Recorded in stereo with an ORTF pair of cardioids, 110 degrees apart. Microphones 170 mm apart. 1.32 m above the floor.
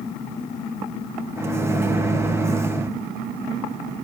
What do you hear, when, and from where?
1.4 s a microwave: 15° right, 1.1 m